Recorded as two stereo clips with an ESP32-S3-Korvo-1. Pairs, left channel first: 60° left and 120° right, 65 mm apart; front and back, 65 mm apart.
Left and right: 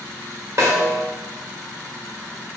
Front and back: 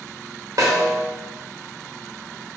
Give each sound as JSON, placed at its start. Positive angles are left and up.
{"t": 0.6, "sound": "a snare drum", "azimuth_deg": -155, "distance_m": 1.6}